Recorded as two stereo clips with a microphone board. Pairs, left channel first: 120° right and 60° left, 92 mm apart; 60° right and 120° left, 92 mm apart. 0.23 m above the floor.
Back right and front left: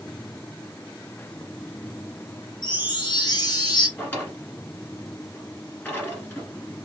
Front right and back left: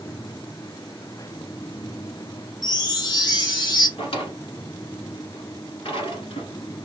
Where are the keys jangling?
No keys jangling in this recording.